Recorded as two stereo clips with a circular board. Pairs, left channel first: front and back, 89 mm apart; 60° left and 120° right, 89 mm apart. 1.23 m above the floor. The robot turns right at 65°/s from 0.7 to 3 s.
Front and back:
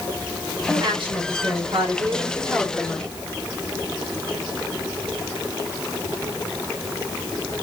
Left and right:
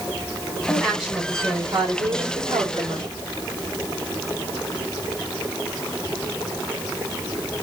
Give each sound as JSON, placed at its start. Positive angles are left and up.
{"t": 0.7, "sound": "a woman speaking", "azimuth_deg": 135, "distance_m": 3.5}